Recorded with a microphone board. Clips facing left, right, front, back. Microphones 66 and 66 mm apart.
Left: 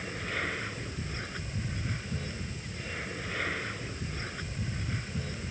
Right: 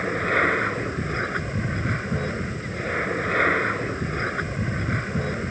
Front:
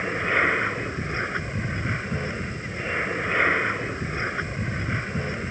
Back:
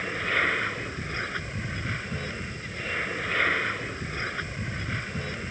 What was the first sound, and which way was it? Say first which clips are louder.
An aircraft: right 13 dB, front 4 dB; 70° right.